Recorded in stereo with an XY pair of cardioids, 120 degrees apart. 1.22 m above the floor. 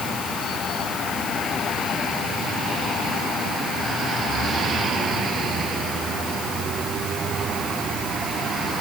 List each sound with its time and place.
Only background noise.